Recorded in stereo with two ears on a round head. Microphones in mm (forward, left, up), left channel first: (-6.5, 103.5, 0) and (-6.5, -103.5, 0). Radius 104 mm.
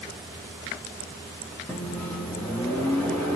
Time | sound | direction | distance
1.7 | a microwave | 5° left (ahead or behind) | 0.9 m